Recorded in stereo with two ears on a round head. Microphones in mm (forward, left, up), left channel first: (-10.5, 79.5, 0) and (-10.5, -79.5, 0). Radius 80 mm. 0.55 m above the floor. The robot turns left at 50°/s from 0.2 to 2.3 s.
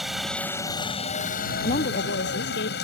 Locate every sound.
0.0 s a helicopter: straight behind; by 2.9 s 75° left
1.6 s a woman speaking: 140° left; by 2.8 s 105° left